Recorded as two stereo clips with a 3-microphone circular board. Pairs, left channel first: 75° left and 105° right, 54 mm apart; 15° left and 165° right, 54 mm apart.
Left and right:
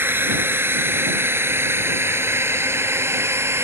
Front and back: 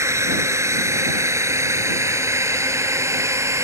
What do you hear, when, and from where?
0.0 s a drone: 145° right; by 3.6 s 140° right